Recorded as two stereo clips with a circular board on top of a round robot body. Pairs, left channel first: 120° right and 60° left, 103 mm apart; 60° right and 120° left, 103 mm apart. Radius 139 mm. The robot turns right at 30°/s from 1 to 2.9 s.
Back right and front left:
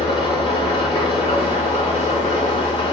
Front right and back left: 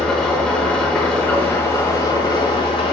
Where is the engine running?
145° right, 5 m; by 2.9 s 90° right, 5 m.